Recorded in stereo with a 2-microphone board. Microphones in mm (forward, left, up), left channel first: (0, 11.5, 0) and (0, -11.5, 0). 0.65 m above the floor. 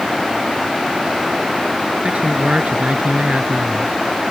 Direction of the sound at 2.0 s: 85° right.